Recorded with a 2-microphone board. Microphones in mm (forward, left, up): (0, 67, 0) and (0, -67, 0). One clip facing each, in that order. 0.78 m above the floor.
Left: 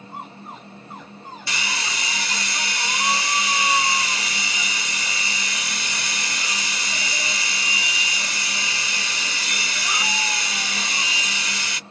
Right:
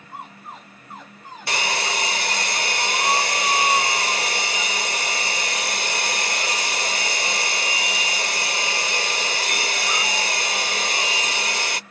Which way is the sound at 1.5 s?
60° right (ahead or behind).